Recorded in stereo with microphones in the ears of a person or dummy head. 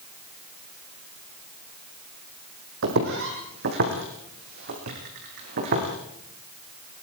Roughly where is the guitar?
No guitar in this recording.